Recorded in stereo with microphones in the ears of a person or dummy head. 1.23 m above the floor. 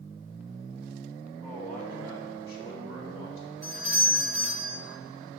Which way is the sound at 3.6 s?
60° left (ahead or behind).